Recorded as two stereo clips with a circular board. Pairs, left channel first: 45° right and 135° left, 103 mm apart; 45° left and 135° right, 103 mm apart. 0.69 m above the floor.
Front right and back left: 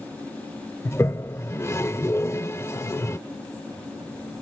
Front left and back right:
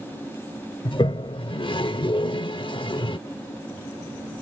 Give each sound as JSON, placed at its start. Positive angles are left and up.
{"t": 0.8, "sound": "a toilet flushing", "azimuth_deg": 15}